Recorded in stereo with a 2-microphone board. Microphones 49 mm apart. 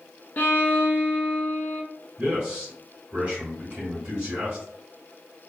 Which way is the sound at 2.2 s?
20° right (ahead or behind).